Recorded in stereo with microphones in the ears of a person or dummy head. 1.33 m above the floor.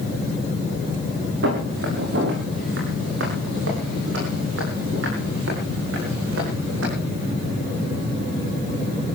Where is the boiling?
No boiling in this recording.